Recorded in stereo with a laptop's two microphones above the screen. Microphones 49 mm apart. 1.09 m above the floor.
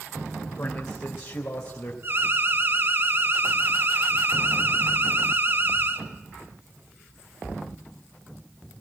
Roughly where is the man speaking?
Left.